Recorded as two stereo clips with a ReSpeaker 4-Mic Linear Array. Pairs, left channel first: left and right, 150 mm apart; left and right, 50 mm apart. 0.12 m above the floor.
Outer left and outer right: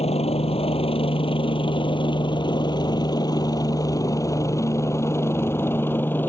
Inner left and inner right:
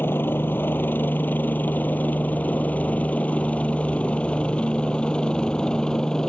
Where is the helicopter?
45° left (ahead or behind); by 6.3 s 15° left (ahead or behind).